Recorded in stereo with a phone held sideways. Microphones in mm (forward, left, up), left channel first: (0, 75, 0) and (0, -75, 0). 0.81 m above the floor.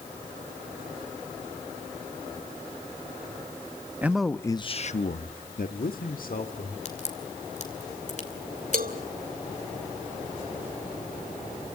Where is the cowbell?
70° right (ahead or behind), 1.2 m.